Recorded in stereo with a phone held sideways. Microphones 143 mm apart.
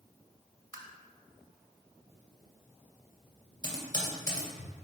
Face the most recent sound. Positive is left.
turn(degrees=30)  # may be behind; listen again after turning